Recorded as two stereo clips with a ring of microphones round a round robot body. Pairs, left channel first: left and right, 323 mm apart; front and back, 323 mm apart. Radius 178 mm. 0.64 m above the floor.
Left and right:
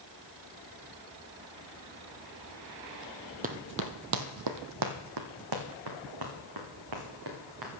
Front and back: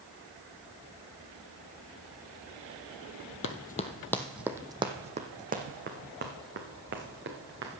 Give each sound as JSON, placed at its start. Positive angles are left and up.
{"t": 3.4, "sound": "running footsteps", "azimuth_deg": -35, "distance_m": 0.8}